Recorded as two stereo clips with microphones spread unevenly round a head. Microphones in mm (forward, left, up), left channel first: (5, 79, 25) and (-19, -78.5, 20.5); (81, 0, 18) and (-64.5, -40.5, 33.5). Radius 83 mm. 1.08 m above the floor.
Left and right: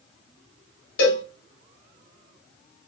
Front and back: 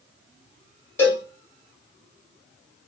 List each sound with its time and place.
1.0 s a cowbell: 95° left, 3 m